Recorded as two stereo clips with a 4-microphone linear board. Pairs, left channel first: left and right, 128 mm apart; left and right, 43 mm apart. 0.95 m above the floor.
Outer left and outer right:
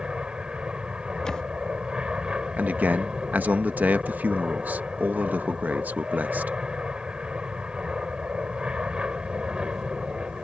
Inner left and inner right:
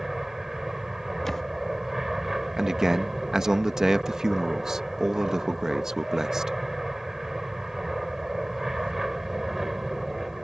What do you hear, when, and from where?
0.0 s an aircraft: 5° right (ahead or behind)
1.2 s a camera shutter: 5° left (ahead or behind)
2.6 s a man speaking: 15° right (ahead or behind)